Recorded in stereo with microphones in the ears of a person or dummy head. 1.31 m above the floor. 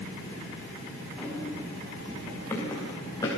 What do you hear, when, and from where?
1.2 s running footsteps: 5° left (ahead or behind), 5 m; by 3.3 s 20° left (ahead or behind), 5 m